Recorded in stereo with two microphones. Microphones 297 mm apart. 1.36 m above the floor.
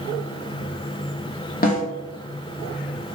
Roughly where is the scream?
I don't hear a scream.